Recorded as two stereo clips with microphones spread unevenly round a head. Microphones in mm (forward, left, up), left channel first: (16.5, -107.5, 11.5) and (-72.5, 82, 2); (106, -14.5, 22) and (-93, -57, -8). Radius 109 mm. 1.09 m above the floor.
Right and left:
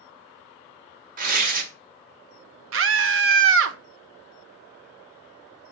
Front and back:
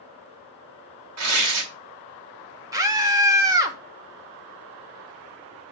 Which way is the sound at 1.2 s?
165° left.